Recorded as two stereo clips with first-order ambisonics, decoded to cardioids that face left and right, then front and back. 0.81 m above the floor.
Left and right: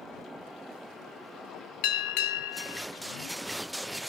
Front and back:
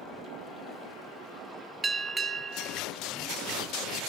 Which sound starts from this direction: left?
A bell, at 1.8 s.